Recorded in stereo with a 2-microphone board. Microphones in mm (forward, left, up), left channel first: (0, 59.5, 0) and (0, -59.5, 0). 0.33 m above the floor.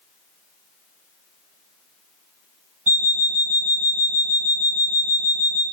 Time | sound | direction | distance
2.9 | an alarm clock | 30° left (ahead or behind) | 0.7 m